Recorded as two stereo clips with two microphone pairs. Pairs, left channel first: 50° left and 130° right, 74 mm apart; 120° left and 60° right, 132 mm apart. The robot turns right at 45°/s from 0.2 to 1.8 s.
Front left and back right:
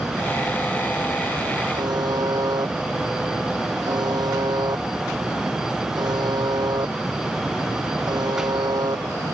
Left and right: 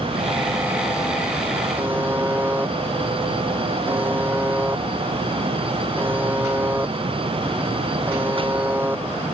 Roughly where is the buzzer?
Behind right.